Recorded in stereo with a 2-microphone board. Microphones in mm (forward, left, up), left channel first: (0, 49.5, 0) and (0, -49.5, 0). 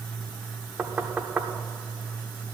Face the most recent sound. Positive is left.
turn(degrees=-15)  # may be behind; listen again after turning